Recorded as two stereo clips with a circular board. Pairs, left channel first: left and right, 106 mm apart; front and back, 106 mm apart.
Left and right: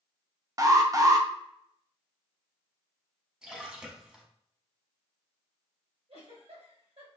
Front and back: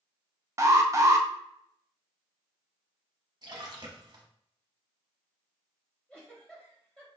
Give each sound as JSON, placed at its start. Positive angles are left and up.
{"t": 0.6, "sound": "an alarm", "azimuth_deg": -130, "distance_m": 0.5}
{"t": 3.4, "sound": "a splash", "azimuth_deg": -170, "distance_m": 1.0}
{"t": 6.1, "sound": "a giggle", "azimuth_deg": -80, "distance_m": 1.6}